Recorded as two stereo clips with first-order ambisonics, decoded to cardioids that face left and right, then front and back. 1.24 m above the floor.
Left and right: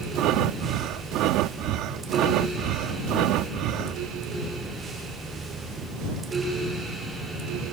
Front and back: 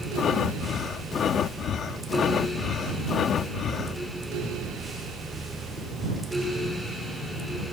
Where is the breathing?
55° right.